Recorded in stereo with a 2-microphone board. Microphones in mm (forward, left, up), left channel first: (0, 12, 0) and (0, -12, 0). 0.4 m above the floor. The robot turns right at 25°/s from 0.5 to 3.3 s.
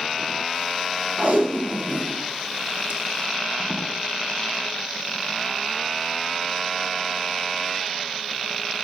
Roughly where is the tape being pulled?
Right.